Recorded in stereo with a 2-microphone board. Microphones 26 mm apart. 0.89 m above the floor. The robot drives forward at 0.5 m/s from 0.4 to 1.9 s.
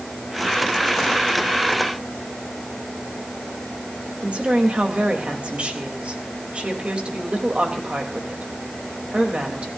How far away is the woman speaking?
About 3.5 m.